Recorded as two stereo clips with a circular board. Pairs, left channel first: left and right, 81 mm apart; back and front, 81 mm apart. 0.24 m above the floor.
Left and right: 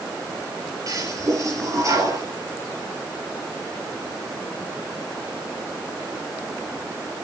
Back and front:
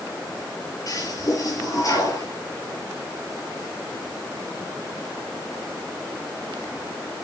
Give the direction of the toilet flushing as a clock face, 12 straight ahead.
5 o'clock.